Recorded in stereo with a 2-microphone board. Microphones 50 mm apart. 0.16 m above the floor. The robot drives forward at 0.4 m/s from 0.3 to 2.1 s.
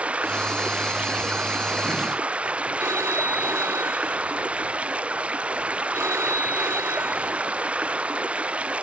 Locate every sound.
0.0 s running water: 25° right (ahead or behind)
2.8 s a phone ringing: 80° right